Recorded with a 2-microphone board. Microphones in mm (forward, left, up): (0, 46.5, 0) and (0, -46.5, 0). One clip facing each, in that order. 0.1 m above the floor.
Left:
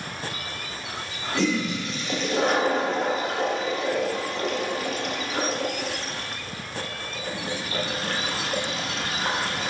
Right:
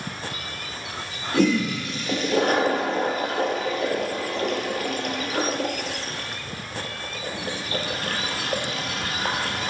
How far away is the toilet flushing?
About 1.1 m.